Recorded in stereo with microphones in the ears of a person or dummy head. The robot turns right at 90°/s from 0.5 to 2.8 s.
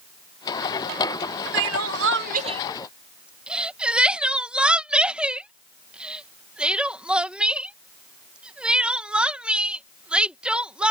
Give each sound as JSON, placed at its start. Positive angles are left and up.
{"t": 1.5, "sound": "crying", "side_deg": -65}